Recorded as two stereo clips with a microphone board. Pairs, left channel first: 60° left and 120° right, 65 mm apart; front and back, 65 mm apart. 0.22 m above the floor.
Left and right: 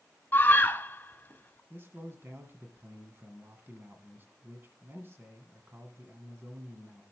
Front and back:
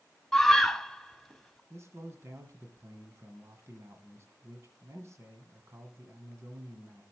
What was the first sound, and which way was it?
A scream, 80° left.